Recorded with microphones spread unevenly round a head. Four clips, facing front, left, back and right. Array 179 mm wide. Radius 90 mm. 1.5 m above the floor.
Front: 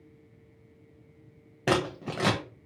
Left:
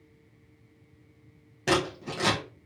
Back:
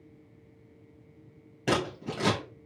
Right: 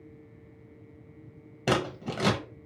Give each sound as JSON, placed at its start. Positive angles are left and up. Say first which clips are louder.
{"t": 1.7, "sound": "scissors", "louder": "left 1 dB, front 2 dB", "azimuth_deg": -15, "distance_m": 1.2}